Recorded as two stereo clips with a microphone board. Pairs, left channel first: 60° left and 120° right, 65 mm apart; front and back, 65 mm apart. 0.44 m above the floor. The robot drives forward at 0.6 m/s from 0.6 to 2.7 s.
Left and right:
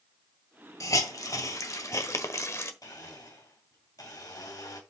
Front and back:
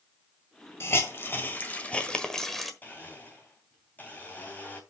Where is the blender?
65° left, 3 m.